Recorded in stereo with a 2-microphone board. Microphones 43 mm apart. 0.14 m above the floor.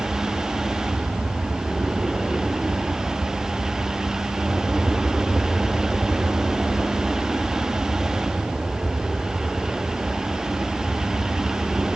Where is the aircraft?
25° right (ahead or behind).